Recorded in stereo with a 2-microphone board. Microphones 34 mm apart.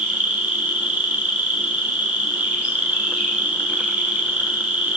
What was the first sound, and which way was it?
An insect, 40° right (ahead or behind).